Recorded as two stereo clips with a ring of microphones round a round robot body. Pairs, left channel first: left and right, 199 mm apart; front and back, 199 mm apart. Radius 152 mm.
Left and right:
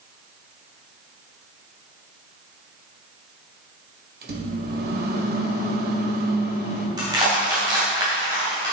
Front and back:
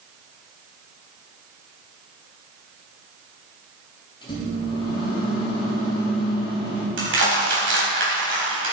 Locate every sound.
4.2 s a microwave: 65° right, 2.0 m
7.0 s crushing: 165° right, 3 m